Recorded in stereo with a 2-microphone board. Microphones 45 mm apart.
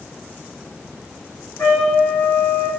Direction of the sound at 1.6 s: 45° left (ahead or behind).